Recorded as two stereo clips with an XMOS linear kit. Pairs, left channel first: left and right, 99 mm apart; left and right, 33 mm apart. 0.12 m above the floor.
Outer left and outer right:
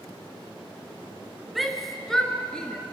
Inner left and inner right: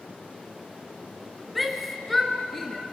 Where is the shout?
Centre (ahead or behind), 1.7 m; by 2.8 s 10° left (ahead or behind), 2.5 m.